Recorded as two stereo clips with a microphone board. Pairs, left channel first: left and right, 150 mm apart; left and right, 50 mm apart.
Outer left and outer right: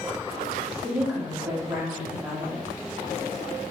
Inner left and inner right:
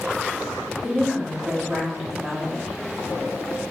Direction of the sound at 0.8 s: 5° right (ahead or behind).